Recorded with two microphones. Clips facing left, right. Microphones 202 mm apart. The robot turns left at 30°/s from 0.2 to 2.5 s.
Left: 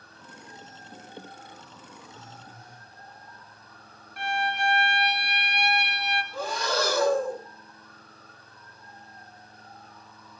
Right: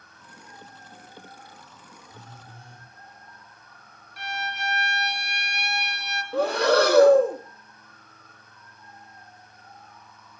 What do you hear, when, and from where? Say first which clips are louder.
2.1 s a phone buzzing: even; 15° right (ahead or behind), 5.5 m; by 2.9 s 30° right (ahead or behind), 5.5 m
4.2 s a violin: left 5 dB; 55° left (ahead or behind), 2 m
6.3 s breathing: right 11 dB; 65° right (ahead or behind), 1.6 m